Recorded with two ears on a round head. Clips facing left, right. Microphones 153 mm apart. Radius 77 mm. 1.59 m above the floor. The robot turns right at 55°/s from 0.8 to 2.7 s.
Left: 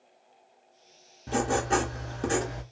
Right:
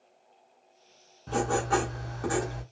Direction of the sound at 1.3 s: 15° left (ahead or behind).